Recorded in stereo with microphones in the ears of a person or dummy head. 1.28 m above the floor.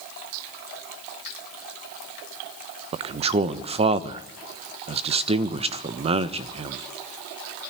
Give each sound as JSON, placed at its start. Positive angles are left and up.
{"t": 2.9, "sound": "a man speaking", "side_deg": -30, "distance_m": 1.0}